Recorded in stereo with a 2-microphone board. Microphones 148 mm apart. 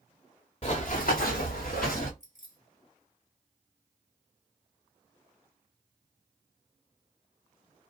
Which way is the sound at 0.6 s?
45° left (ahead or behind).